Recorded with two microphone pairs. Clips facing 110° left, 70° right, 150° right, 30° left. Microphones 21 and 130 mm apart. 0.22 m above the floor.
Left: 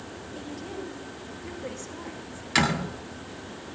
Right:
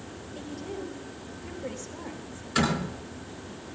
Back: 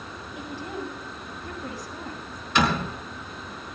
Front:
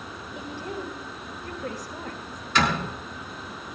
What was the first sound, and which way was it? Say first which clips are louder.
A woman speaking: right 1 dB, even; 40° left.